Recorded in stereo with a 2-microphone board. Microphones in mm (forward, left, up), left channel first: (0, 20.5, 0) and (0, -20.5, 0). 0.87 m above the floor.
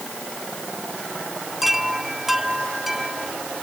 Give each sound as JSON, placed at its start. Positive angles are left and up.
{"t": 1.6, "sound": "a chime", "side_deg": -5}